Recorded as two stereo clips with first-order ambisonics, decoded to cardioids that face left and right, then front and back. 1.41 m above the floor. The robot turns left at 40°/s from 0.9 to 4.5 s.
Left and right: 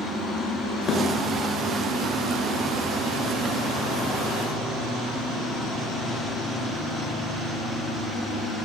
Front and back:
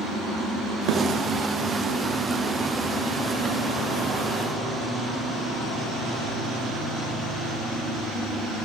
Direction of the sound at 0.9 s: 150° left.